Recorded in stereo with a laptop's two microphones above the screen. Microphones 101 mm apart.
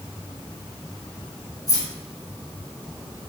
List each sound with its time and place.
1.7 s keys jangling: 35° left (ahead or behind), 0.9 m